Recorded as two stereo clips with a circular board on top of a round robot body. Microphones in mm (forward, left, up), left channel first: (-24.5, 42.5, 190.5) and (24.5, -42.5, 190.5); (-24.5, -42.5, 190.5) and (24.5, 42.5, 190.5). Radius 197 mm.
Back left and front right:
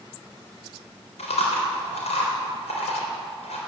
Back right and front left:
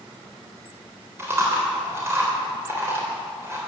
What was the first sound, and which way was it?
Chewing, 125° left.